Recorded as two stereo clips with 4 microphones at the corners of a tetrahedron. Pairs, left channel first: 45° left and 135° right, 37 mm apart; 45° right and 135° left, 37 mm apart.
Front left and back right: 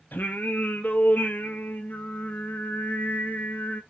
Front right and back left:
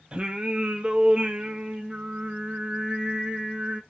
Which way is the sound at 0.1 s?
70° left.